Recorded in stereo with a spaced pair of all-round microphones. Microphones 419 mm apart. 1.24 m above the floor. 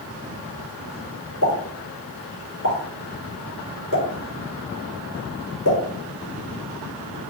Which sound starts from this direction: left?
A pop, at 1.4 s.